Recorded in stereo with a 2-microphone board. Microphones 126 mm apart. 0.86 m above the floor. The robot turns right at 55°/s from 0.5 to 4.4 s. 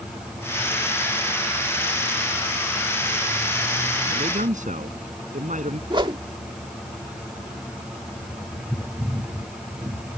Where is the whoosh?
40° right (ahead or behind).